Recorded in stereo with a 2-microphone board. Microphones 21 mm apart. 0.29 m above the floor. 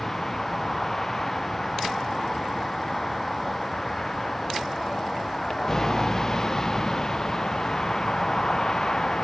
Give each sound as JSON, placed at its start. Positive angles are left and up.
{"t": 0.0, "sound": "a vehicle", "side_deg": 20}